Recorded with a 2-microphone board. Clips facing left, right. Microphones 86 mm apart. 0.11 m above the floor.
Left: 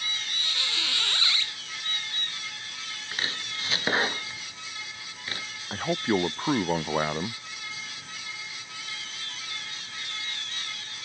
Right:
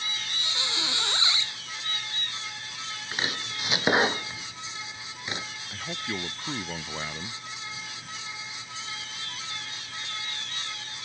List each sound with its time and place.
0.4 s a squeak: 20° right (ahead or behind)
3.1 s chopping: 20° right (ahead or behind)
5.7 s a man speaking: 40° left (ahead or behind)